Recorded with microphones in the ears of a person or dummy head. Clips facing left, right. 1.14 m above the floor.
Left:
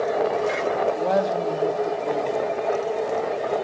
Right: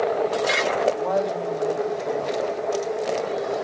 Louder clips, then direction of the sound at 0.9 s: Left 2 dB; 30° left (ahead or behind).